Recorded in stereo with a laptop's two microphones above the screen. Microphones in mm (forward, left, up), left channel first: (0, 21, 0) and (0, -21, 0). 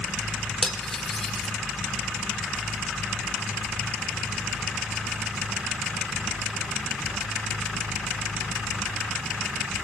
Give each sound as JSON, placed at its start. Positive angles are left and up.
{"t": 0.6, "sound": "cutlery clinking", "side_deg": 10, "distance_m": 0.7}